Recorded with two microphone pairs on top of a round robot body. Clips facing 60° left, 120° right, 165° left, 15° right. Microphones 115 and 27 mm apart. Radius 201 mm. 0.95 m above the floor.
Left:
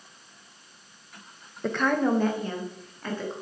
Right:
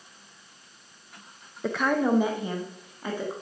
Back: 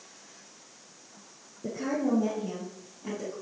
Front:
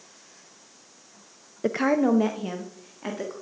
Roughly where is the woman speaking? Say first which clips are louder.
Even, front 7 dB; ahead right.